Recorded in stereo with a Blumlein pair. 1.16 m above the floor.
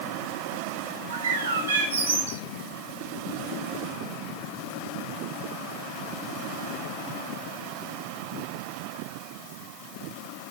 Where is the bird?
65° right, 1.5 m.